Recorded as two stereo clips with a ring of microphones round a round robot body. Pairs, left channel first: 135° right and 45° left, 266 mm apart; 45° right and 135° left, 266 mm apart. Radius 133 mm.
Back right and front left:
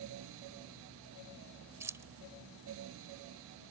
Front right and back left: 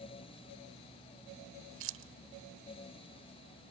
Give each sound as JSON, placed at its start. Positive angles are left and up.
{"t": 1.8, "sound": "keys jangling", "azimuth_deg": 120}